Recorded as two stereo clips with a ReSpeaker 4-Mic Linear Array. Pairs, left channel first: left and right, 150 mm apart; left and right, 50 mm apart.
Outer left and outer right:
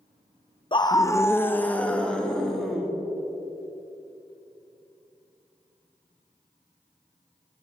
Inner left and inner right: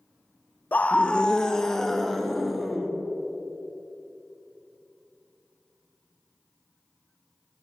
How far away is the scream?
About 0.7 m.